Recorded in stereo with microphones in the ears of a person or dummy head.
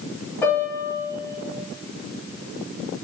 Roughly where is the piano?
Centre.